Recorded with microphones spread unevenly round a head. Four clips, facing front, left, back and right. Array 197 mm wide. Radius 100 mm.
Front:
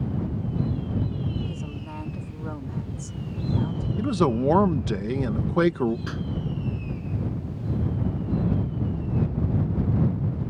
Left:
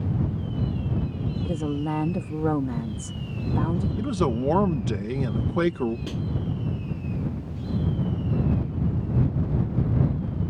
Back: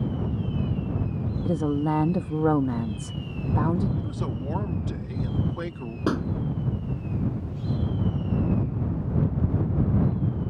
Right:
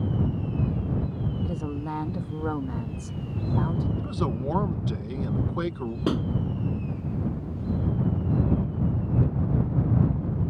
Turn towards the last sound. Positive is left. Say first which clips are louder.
# right 6 dB, back 8 dB
turn(degrees=-140)